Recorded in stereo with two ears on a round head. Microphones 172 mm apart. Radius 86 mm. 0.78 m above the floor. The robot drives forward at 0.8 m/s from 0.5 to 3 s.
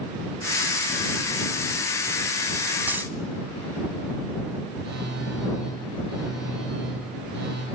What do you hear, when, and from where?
2.9 s a dropped coin: 10° right (ahead or behind), 0.8 m
4.8 s a phone buzzing: 65° right (ahead or behind), 5.5 m